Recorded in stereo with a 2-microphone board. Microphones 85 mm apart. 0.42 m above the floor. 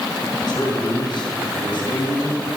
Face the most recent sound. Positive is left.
turn(degrees=65)  # may be behind; listen again after turning